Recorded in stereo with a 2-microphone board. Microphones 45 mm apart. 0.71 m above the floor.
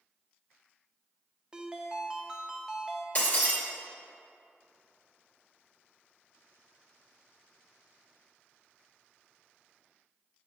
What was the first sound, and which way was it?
A ringtone, 20° right (ahead or behind).